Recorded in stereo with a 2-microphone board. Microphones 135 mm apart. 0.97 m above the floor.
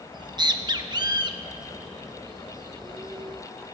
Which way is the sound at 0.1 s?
35° right (ahead or behind).